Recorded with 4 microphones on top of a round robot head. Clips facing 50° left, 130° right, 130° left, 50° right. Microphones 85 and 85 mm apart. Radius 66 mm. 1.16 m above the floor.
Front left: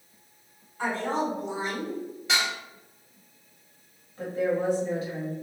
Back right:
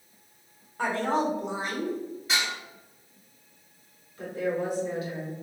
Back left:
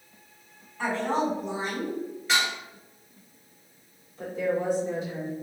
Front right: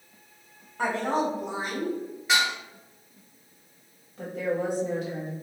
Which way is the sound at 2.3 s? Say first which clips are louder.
Front left 2 dB, front right 2 dB; 30° left.